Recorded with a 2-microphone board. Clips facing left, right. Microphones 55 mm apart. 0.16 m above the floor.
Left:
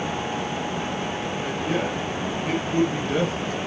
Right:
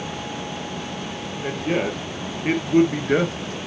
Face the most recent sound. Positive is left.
turn(degrees=-45)  # may be behind; listen again after turning